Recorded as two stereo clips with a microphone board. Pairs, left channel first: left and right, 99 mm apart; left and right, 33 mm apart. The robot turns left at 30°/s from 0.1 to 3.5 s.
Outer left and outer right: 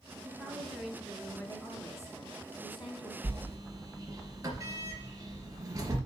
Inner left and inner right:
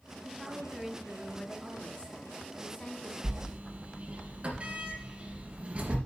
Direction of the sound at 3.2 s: 30° right (ahead or behind).